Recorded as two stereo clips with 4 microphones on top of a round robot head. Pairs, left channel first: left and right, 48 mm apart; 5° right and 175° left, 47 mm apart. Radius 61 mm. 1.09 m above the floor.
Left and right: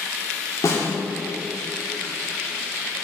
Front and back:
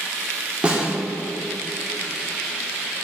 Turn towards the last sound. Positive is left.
turn(degrees=110)